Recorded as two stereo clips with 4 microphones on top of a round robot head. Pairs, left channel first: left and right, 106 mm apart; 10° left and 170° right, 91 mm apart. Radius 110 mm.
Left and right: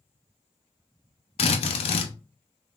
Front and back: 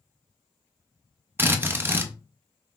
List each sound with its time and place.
1.4 s a drill: 120° left, 0.7 m